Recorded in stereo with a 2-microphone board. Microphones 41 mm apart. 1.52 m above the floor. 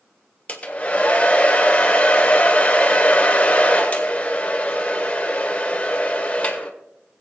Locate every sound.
0.5 s a hair dryer: 30° left (ahead or behind), 1.5 m